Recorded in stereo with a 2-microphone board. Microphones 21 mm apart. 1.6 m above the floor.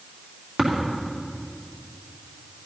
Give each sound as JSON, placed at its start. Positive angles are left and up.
{"t": 0.6, "sound": "tapping", "side_deg": -50, "distance_m": 3.0}